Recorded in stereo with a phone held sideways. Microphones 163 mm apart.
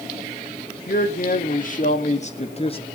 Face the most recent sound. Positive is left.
turn(degrees=35)  # may be behind; listen again after turning